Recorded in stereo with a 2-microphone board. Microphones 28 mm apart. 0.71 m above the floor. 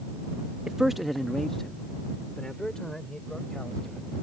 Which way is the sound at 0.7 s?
20° right (ahead or behind).